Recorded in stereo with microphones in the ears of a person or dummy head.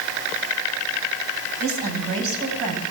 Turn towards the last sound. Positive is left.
turn(degrees=-85)